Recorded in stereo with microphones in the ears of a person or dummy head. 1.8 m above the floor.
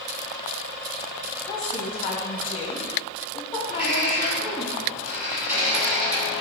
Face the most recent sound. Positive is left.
turn(degrees=-15)  # may be behind; listen again after turning